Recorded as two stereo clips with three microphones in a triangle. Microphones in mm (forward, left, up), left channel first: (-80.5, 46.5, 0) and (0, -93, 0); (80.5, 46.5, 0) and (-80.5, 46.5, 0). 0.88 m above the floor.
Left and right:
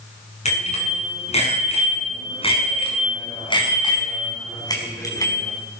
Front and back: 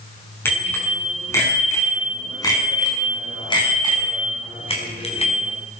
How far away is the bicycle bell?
About 6.5 m.